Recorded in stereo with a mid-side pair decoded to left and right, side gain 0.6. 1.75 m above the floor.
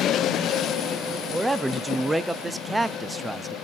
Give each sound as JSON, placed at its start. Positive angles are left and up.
{"t": 1.3, "sound": "a man speaking", "azimuth_deg": -10, "distance_m": 0.5}